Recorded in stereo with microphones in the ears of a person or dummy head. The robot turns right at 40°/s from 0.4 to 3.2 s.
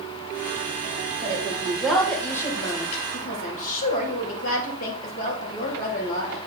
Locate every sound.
1.2 s a woman speaking: 30° right, 2.5 m; by 6.4 s 50° left, 2.5 m